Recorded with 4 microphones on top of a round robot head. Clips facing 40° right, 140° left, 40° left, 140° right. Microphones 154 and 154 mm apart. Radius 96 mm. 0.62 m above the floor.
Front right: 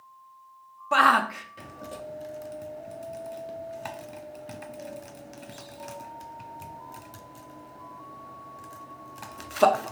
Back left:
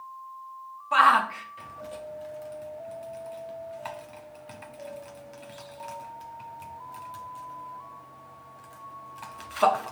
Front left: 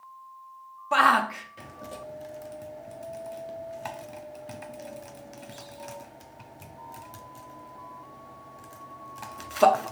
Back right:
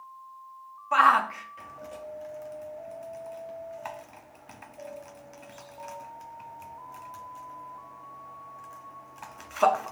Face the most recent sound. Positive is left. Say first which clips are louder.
# even, even
turn(degrees=-10)